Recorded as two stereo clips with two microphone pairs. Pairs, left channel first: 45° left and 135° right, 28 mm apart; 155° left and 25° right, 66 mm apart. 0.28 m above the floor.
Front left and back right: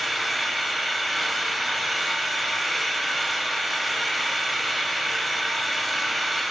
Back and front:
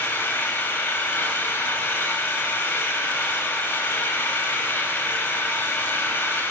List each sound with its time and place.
0.0 s an engine running: 135° left, 1.1 m